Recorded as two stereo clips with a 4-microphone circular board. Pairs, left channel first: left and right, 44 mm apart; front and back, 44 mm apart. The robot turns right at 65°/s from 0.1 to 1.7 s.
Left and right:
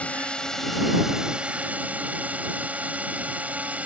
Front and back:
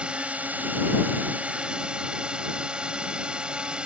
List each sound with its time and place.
0.0 s a drone: 130° left; by 3.9 s 125° right